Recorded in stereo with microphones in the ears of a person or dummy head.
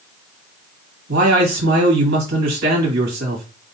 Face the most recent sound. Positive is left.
turn(degrees=-55)  # may be behind; listen again after turning